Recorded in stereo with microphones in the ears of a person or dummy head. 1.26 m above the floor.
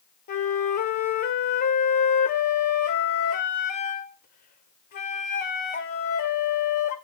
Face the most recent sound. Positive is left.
turn(degrees=40)  # may be behind; listen again after turning